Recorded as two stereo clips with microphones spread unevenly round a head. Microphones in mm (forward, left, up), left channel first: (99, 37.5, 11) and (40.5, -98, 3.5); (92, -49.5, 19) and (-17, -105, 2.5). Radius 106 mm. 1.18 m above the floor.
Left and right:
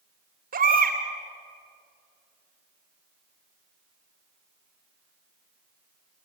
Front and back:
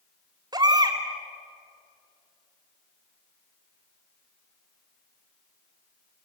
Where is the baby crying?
95° right, 3.5 m.